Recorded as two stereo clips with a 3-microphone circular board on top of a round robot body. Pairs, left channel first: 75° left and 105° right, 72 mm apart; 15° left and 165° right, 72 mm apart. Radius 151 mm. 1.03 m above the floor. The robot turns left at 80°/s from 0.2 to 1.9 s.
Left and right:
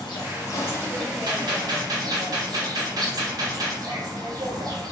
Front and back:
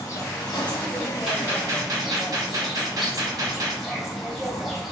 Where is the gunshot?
85° right, 1.2 m; by 3.8 s 135° right, 1.2 m.